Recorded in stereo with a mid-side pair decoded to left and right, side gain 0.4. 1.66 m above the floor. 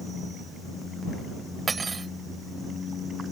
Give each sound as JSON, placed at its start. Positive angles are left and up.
{"t": 1.7, "sound": "cutlery clinking", "azimuth_deg": -35}